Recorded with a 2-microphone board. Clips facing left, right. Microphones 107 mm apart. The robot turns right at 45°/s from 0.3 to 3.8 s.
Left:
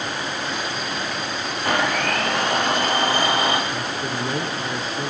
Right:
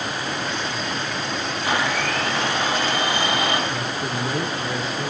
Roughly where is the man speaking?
Centre.